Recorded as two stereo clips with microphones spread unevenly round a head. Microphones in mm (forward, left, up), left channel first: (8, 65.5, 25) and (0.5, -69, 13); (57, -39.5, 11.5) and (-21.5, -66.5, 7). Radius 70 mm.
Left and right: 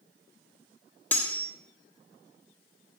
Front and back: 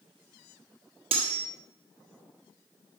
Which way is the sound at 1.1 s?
165° left.